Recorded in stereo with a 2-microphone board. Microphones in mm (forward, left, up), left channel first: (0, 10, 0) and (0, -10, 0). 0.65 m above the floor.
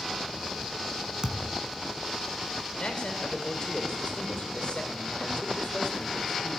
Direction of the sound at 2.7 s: 60° left (ahead or behind).